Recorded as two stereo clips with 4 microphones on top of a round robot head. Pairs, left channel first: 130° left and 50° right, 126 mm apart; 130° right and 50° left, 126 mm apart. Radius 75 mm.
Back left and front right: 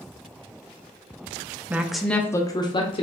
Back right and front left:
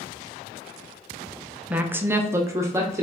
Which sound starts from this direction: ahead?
A woman speaking, at 1.7 s.